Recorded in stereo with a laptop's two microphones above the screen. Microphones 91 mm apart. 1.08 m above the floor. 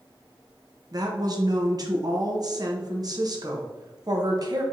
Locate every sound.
0.9 s a woman speaking: 45° right (ahead or behind), 0.8 m